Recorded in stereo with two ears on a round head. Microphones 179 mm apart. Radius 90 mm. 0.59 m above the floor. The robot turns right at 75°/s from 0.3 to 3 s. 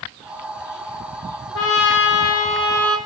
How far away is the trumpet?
About 4 m.